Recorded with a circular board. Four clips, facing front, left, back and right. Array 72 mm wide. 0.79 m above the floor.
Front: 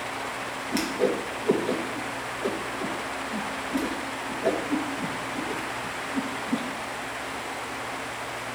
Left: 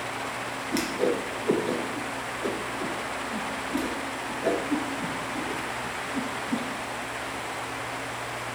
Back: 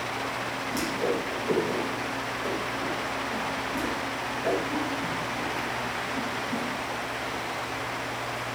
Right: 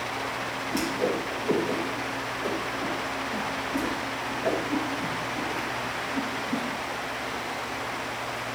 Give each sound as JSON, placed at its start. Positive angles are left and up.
{"t": 0.7, "sound": "a whoosh", "azimuth_deg": 40, "distance_m": 3.0}